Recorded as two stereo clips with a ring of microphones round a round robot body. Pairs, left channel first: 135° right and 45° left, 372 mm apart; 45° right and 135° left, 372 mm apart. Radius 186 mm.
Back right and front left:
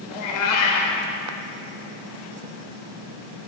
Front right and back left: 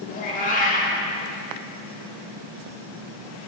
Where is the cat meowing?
115° right, 1.3 m.